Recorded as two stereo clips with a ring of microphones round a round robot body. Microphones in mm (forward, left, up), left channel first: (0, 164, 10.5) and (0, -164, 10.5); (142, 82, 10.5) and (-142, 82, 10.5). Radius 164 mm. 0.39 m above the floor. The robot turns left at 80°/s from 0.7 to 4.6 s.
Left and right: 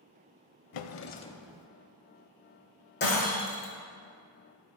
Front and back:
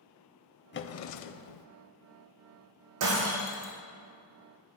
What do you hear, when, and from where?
0.7 s a drawer: 55° left, 0.6 m; by 1.7 s 20° right, 0.6 m
3.0 s breaking glass: 150° left, 2.5 m; by 3.7 s 95° left, 2.5 m